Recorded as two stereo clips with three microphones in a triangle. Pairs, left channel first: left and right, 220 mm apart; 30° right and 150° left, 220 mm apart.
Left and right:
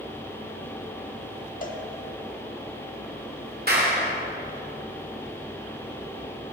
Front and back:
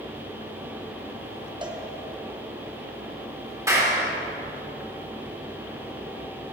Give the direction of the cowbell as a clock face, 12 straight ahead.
9 o'clock.